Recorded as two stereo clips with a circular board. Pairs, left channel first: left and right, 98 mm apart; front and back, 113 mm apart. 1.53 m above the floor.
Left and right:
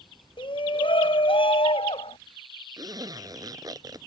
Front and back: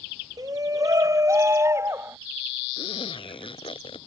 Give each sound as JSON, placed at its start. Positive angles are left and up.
{"t": 0.4, "sound": "a shout", "azimuth_deg": 125}
{"t": 2.8, "sound": "a zipper", "azimuth_deg": -40}